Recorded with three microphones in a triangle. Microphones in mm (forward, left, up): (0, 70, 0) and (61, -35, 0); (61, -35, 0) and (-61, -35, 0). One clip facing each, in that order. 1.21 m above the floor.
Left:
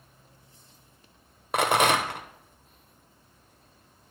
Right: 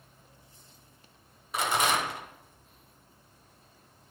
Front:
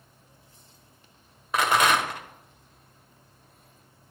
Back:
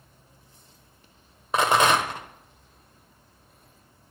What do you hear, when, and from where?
1.5 s a rattle: 120° left, 0.9 m